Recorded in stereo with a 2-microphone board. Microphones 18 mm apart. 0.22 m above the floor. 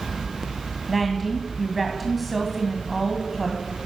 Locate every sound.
0.9 s a woman speaking: 5° right (ahead or behind), 1.7 m